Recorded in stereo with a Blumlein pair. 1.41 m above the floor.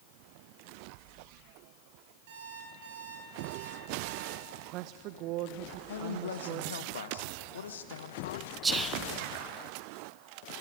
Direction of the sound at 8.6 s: 15° right.